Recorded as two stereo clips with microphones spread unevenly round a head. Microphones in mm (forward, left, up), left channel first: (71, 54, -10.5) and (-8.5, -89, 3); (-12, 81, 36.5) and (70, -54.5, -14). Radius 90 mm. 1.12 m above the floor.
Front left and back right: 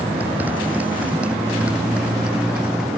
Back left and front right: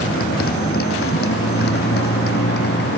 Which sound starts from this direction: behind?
A motorcycle, at 0.0 s.